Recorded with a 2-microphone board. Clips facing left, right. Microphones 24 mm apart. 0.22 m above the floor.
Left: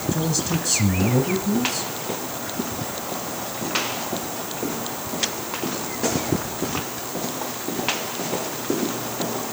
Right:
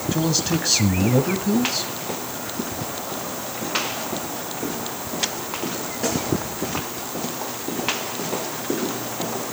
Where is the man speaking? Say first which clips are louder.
Right 3 dB; 30° right (ahead or behind), 1.1 m.